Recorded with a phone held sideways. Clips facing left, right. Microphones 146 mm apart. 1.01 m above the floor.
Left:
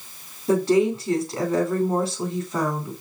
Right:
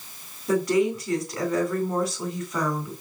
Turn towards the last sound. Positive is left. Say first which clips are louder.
# left 3 dB
turn(degrees=25)  # may be behind; listen again after turning